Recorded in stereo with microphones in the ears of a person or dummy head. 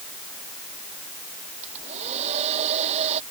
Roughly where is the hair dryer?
Right.